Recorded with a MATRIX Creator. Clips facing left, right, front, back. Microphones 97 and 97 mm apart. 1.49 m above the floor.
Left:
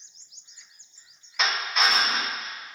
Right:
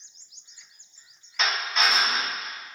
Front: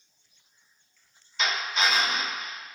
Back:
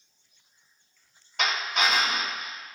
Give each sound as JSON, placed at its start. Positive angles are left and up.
{"t": 1.4, "sound": "a drill", "azimuth_deg": 175, "distance_m": 1.5}